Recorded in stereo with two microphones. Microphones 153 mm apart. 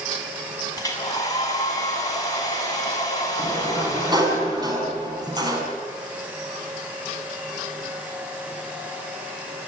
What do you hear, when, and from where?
0.8 s a hair dryer: 25° left (ahead or behind), 6 m
3.4 s a sliding door: 25° right (ahead or behind), 5.5 m